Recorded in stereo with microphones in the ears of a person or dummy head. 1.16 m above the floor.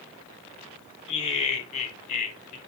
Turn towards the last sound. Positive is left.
turn(degrees=45)  # may be behind; listen again after turning